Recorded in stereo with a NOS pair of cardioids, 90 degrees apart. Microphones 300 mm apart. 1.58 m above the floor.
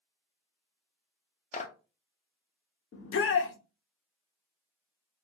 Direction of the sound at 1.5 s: 25° left.